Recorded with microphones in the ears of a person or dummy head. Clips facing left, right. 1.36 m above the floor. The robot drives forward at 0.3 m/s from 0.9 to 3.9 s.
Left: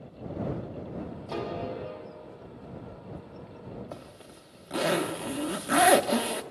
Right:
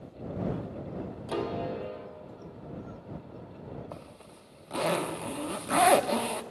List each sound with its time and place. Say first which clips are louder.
1.3 s a piano: right 2 dB; 15° right (ahead or behind), 1.6 m
3.9 s a zipper: left 1 dB; 15° left (ahead or behind), 0.8 m